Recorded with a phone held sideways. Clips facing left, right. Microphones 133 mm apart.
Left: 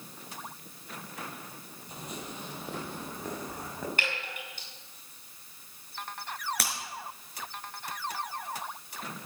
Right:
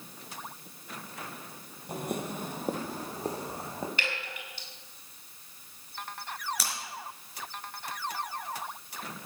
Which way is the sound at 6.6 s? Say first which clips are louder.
Left 2 dB; 60° left (ahead or behind).